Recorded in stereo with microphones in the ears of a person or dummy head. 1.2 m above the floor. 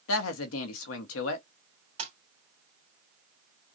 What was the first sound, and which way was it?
A woman speaking, 75° left (ahead or behind).